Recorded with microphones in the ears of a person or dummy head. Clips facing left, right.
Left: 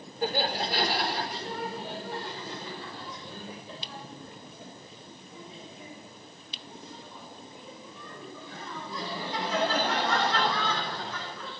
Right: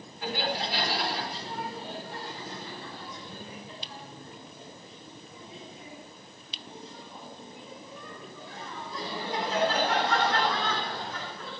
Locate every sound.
0.2 s laughter: 35° left (ahead or behind), 4 m; by 11.5 s 75° left (ahead or behind), 13.5 m